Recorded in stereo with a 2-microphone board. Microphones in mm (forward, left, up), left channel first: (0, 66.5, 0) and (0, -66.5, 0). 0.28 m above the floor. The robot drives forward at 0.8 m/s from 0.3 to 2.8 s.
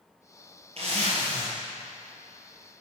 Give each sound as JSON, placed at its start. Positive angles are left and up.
{"t": 0.8, "sound": "a zipper", "side_deg": -50, "distance_m": 4.0}